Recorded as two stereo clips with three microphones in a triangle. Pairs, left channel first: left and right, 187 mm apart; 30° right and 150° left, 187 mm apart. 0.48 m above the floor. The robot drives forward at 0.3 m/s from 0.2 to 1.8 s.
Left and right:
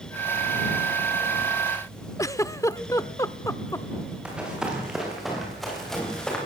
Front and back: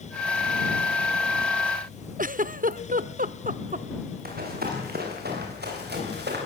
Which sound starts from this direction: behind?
Running footsteps, at 4.2 s.